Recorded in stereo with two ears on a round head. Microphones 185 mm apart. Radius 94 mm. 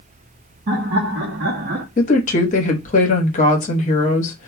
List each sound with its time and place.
0.7 s laughter: 55° right (ahead or behind), 1.1 m; by 1.9 s 40° right (ahead or behind), 0.5 m
2.0 s a woman speaking: 35° left (ahead or behind), 0.9 m